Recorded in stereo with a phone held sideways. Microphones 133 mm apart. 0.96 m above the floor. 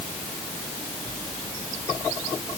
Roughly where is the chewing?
No chewing in this recording.